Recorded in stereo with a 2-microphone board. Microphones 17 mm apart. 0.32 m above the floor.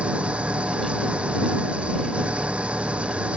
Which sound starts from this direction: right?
An engine running, at 0.0 s.